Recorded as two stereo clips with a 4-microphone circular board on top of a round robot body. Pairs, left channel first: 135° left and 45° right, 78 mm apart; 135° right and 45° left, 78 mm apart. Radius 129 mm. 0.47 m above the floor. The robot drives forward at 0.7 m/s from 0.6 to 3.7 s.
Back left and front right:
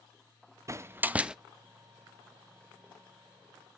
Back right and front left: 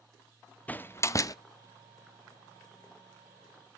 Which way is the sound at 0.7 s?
75° right.